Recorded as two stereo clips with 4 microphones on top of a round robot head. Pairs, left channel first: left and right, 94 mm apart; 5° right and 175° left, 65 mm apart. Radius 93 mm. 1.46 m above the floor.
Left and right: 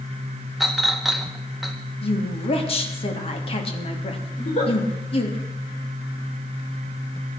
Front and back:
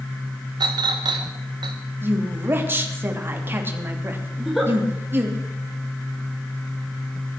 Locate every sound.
0.6 s a clink: straight behind, 1.1 m
2.0 s a woman speaking: 115° left, 3 m
4.4 s a giggle: 85° left, 6 m